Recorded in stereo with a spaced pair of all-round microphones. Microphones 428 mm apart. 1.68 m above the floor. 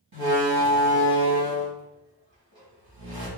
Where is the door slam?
55° right (ahead or behind), 2 m.